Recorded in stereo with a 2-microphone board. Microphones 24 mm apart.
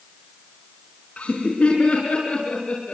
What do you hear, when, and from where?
1.2 s laughter: 60° left (ahead or behind), 4.5 m; by 2.9 s 55° left (ahead or behind), 7 m